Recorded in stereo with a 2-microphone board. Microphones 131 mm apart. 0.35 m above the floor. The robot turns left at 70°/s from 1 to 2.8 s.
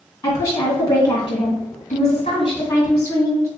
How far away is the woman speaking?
About 2 m.